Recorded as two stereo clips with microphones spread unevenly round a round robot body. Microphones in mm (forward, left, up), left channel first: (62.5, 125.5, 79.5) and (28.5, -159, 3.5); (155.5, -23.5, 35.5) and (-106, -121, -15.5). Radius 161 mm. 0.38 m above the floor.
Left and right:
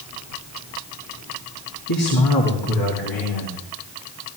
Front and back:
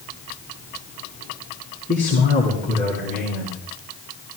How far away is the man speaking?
About 3.5 m.